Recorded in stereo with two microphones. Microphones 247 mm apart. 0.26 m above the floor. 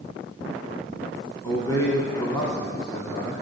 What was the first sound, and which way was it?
A man speaking, 15° left (ahead or behind).